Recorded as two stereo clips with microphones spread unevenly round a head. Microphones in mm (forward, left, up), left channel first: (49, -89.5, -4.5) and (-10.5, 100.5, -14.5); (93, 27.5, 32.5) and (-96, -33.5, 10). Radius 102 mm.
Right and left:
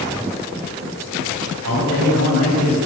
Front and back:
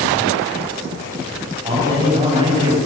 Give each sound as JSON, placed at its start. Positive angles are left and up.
{"t": 1.6, "sound": "a man speaking", "azimuth_deg": 130, "distance_m": 8.0}